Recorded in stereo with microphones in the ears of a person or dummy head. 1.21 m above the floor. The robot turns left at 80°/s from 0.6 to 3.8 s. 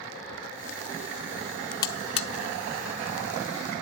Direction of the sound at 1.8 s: 20° left (ahead or behind).